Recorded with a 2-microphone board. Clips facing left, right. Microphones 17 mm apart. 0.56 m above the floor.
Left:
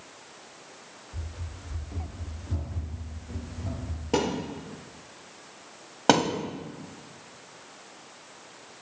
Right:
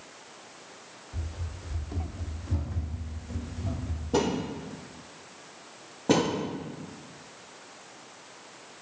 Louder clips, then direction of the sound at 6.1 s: Left 3 dB; 80° left.